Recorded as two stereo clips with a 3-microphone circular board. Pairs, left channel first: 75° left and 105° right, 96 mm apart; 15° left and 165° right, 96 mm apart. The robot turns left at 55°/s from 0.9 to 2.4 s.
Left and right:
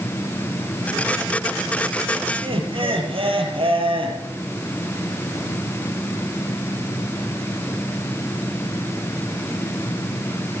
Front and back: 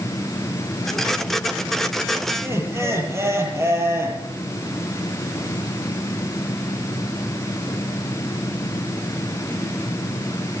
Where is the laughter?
105° right, 4.5 m.